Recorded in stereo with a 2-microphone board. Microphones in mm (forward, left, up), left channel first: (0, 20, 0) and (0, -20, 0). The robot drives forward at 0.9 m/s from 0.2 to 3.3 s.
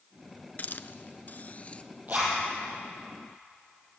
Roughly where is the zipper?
Right.